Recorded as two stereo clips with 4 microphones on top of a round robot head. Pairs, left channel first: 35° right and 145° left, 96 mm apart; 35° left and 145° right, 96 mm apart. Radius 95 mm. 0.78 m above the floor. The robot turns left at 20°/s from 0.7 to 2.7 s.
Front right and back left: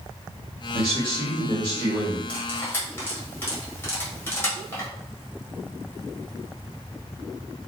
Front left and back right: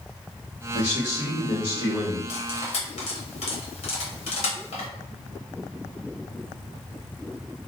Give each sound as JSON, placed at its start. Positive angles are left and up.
{"t": 0.7, "sound": "a man speaking", "azimuth_deg": 75, "distance_m": 1.2}
{"t": 2.3, "sound": "cutlery clinking", "azimuth_deg": 40, "distance_m": 1.2}